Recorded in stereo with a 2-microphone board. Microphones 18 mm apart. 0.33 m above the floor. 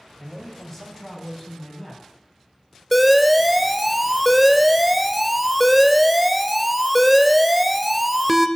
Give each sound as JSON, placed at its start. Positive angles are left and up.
{"t": 0.2, "sound": "a man speaking", "side_deg": 20, "distance_m": 1.8}
{"t": 2.9, "sound": "an alarm", "side_deg": -5, "distance_m": 0.5}